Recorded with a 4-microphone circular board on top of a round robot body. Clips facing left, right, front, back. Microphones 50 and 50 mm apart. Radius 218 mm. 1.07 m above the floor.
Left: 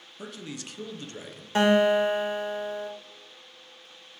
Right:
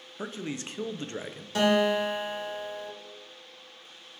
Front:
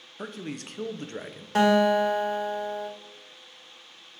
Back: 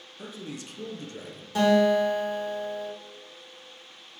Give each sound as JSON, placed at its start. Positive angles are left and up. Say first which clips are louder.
{"t": 0.2, "sound": "a man speaking", "louder": "right 4 dB, front 3 dB", "azimuth_deg": -30, "distance_m": 0.8}
{"t": 1.6, "sound": "a guitar", "louder": "left 3 dB, even", "azimuth_deg": 35, "distance_m": 1.9}